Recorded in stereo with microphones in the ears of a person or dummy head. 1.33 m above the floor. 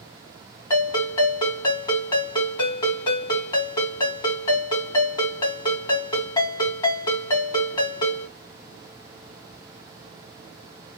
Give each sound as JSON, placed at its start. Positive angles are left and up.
{"t": 0.7, "sound": "a ringtone", "side_deg": 25, "distance_m": 1.8}